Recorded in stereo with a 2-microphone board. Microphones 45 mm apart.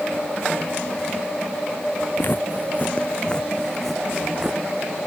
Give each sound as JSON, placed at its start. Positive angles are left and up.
{"t": 2.2, "sound": "footsteps", "side_deg": 55}